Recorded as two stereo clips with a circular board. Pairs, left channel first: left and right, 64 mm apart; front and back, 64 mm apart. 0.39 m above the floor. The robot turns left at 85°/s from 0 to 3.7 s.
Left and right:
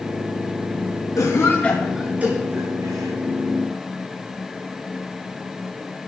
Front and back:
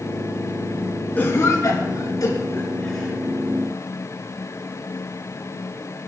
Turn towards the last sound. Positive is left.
turn(degrees=-150)